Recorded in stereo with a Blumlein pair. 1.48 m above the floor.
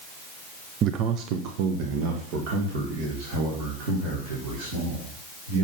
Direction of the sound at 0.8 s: 30° right.